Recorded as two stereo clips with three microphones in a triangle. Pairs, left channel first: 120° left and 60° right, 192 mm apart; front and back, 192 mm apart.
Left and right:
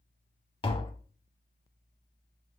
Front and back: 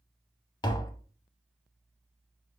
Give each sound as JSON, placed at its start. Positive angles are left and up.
{"t": 0.6, "sound": "tapping", "azimuth_deg": 65, "distance_m": 0.6}